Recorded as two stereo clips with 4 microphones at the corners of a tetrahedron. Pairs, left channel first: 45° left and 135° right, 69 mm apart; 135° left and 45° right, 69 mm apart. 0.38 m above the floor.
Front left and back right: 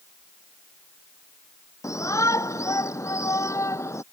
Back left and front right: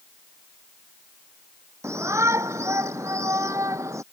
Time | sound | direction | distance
1.8 | a shout | 5° left | ?